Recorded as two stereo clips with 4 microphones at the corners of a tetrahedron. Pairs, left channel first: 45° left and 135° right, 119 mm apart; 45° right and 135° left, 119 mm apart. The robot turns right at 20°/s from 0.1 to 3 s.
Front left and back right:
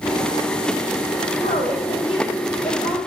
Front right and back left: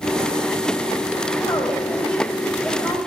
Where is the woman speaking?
20° left, 5 m; by 3.0 s 50° left, 5 m.